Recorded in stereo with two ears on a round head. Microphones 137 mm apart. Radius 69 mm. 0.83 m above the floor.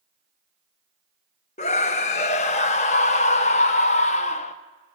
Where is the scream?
50° left (ahead or behind), 0.9 m.